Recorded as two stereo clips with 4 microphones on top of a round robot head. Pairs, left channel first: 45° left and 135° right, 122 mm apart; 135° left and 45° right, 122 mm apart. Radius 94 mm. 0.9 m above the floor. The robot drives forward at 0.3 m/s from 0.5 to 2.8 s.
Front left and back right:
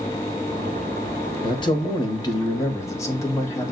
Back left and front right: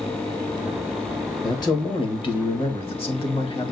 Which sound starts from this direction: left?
A man speaking, at 1.4 s.